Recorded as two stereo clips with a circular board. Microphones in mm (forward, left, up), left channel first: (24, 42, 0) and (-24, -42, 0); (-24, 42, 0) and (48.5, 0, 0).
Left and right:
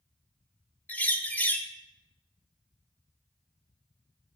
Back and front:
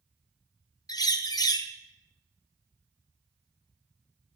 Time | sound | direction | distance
0.9 | a bird | 130° left | 0.5 m